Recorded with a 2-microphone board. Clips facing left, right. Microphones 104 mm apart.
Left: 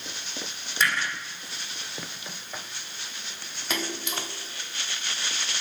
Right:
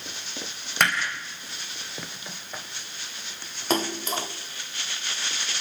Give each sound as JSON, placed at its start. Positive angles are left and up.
{"t": 0.8, "sound": "hammering", "side_deg": -65, "distance_m": 5.0}
{"t": 3.7, "sound": "a splash", "side_deg": -40, "distance_m": 1.6}